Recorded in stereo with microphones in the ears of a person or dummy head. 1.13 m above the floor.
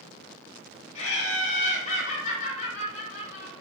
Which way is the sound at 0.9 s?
45° left (ahead or behind).